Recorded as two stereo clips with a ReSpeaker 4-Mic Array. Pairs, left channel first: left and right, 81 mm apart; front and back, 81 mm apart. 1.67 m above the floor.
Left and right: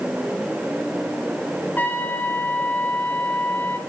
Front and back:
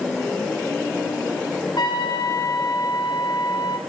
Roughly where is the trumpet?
Ahead left.